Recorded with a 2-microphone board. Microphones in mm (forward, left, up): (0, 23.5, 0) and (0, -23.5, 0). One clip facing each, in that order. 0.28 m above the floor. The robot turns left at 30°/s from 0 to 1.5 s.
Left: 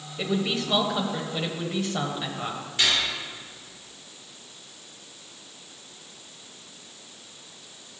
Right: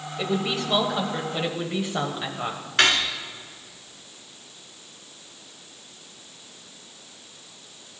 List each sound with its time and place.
0.2 s a woman speaking: centre (ahead or behind), 1.0 m; by 2.6 s 15° right (ahead or behind), 1.0 m
2.8 s cutlery clinking: 65° right (ahead or behind), 1.8 m